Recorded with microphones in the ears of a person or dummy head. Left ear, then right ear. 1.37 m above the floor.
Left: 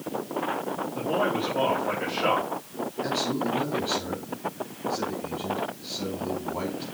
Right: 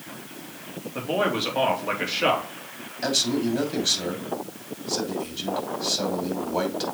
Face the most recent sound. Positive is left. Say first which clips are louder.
# right 5 dB
turn(degrees=-85)